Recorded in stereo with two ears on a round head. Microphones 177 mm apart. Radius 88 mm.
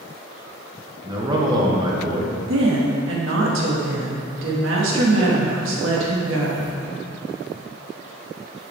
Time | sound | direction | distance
1.0 | a man speaking | 20° right (ahead or behind) | 1.2 m
2.5 | a woman speaking | 70° right (ahead or behind) | 1.9 m